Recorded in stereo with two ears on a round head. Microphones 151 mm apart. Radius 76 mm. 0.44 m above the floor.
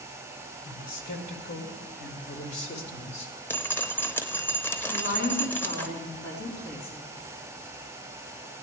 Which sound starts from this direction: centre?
Dripping, at 3.5 s.